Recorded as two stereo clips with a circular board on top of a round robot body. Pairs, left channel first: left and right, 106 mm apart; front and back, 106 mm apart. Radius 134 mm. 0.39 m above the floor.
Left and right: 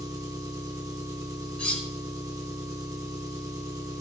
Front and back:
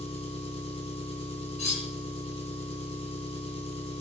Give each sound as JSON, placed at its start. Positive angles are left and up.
{"t": 0.0, "sound": "an engine running", "azimuth_deg": -30, "distance_m": 3.5}
{"t": 1.6, "sound": "cutlery clinking", "azimuth_deg": 10, "distance_m": 3.0}